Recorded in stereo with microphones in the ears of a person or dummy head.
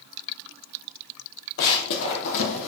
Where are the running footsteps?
50° left (ahead or behind), 1.8 m; by 2.7 s 65° left (ahead or behind), 2.5 m.